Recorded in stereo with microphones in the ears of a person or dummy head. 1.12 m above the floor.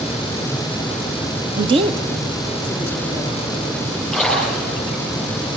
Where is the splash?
5° right (ahead or behind), 7.5 m.